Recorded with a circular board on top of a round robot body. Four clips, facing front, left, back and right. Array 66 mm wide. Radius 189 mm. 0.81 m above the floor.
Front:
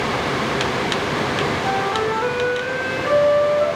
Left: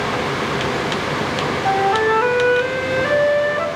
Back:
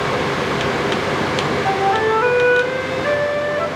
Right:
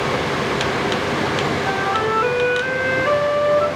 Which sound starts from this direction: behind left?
A flute, at 1.6 s.